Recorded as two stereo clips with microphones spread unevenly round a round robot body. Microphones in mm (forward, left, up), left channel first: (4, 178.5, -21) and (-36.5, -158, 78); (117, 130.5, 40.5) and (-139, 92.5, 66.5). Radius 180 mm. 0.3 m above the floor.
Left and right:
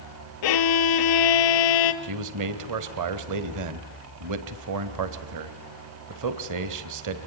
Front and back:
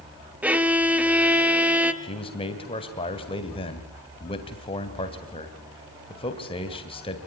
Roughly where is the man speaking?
Ahead right.